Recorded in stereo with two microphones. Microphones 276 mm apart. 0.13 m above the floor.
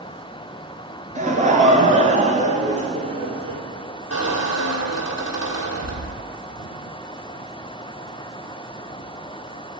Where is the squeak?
60° left (ahead or behind), 1.7 m.